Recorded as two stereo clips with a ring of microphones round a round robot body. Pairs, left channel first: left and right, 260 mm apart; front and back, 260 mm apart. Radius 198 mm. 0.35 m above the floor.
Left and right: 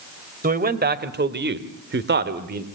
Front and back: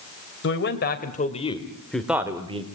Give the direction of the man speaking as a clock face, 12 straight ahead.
1 o'clock.